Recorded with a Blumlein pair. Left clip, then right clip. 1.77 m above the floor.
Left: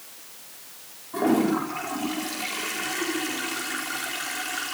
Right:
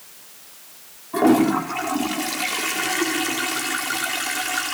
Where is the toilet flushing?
70° right, 4.5 m.